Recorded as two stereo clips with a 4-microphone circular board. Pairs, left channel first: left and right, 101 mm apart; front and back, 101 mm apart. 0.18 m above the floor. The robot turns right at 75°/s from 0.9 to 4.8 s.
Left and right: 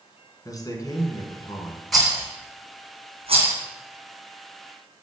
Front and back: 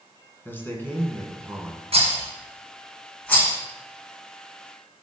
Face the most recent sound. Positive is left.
turn(degrees=35)